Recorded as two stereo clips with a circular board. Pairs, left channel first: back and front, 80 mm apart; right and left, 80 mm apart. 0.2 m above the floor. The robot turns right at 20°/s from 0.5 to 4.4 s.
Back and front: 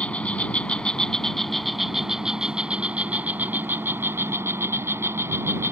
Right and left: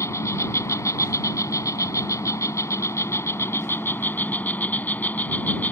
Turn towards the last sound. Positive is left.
turn(degrees=-35)